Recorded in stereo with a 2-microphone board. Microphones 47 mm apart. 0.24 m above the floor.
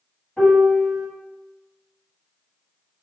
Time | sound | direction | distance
0.4 | a piano | 20° left (ahead or behind) | 1.3 m